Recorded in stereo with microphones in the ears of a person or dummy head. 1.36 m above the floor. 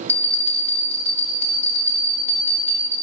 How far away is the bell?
About 3.5 m.